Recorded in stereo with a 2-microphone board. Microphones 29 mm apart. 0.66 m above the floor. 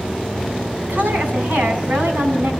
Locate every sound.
0.9 s a woman speaking: 75° right (ahead or behind), 6 m